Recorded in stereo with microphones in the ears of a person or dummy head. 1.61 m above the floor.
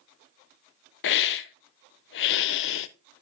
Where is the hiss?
65° left (ahead or behind), 0.6 m.